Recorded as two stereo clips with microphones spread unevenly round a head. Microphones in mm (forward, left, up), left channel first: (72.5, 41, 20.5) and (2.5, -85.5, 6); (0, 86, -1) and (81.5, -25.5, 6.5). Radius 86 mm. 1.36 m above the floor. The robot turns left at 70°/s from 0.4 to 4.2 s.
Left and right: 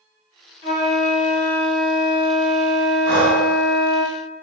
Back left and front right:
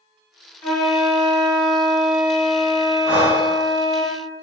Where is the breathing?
125° right, 2.0 m; by 3.5 s 155° right, 2.0 m.